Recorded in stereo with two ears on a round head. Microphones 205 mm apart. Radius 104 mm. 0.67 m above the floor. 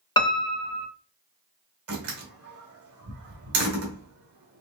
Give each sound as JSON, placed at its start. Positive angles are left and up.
{"t": 0.2, "sound": "a piano", "side_deg": 20, "distance_m": 0.6}
{"t": 1.9, "sound": "a door slam", "side_deg": -75, "distance_m": 2.5}